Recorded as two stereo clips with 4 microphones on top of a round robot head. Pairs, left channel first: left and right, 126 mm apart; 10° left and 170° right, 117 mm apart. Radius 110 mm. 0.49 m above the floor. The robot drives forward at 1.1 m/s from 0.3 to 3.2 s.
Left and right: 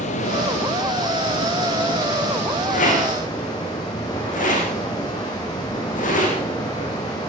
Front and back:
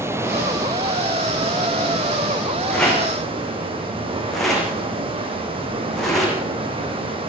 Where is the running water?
125° left, 3 m; by 7.3 s 155° left, 5.5 m.